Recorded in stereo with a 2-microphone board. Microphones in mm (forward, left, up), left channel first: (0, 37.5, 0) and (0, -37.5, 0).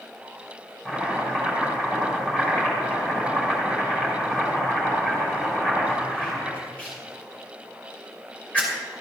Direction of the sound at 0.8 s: 20° left (ahead or behind).